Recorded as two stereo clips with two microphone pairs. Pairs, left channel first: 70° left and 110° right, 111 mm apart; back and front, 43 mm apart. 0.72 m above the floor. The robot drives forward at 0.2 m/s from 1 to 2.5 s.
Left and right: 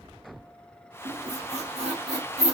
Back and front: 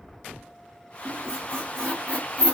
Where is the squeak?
105° right, 1.2 m; by 2.5 s 120° right, 1.3 m.